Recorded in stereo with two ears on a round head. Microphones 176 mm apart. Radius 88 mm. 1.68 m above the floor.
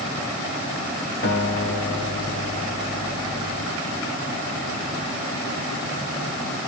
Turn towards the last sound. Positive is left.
turn(degrees=50)  # may be behind; listen again after turning